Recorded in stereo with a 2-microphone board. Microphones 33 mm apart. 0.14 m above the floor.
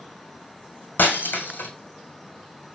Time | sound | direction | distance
1.0 | breaking glass | 80° left | 1.9 m